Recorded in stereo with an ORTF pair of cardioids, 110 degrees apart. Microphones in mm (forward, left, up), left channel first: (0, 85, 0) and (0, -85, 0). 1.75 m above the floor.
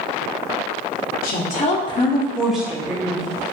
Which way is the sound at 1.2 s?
60° left.